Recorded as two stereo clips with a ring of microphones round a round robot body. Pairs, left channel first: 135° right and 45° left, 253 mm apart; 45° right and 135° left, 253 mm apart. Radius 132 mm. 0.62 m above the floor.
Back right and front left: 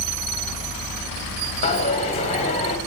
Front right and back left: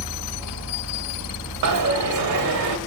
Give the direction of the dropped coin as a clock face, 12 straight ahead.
7 o'clock.